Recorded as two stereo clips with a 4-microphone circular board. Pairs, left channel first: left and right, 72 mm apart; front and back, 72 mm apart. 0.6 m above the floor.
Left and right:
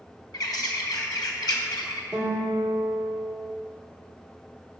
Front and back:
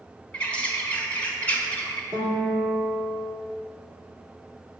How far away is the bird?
About 1.4 m.